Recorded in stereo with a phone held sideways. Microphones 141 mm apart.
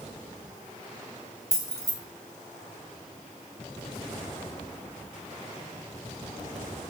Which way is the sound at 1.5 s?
20° left (ahead or behind).